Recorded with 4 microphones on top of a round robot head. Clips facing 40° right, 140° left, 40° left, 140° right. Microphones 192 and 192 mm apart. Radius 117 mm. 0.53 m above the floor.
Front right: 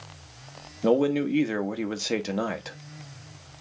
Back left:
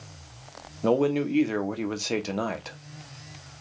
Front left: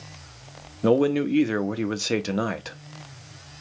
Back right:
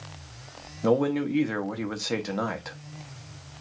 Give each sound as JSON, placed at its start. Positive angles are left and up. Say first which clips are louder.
{"t": 0.8, "sound": "a man speaking", "louder": "front right 1 dB, front left 3 dB", "azimuth_deg": 35, "distance_m": 0.8}